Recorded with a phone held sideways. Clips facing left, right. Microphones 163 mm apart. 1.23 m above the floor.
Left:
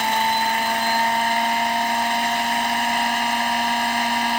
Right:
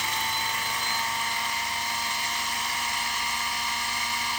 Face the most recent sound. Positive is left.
turn(degrees=70)  # may be behind; listen again after turning